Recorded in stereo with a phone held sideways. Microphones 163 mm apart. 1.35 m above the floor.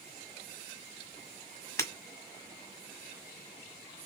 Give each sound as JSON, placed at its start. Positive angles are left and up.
{"t": 1.8, "sound": "breaking glass", "side_deg": 15, "distance_m": 1.6}